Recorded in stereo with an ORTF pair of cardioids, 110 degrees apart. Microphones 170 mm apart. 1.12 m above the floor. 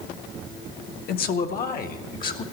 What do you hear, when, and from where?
1.1 s a man speaking: 60° left, 1.1 m; by 2.4 s 50° left, 2.0 m